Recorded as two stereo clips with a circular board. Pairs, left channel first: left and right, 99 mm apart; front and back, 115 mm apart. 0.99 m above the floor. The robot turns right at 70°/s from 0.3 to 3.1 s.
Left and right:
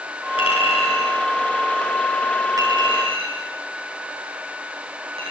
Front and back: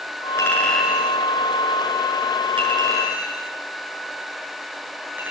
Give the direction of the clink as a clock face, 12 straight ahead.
10 o'clock.